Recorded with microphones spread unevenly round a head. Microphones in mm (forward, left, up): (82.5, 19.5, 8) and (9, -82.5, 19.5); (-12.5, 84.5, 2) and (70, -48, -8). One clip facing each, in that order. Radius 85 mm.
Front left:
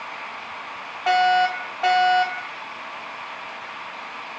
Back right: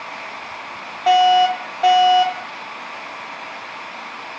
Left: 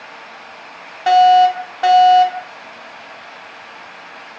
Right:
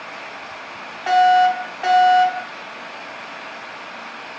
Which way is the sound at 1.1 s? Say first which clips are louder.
Back right 5 dB, left 4 dB; 165° left.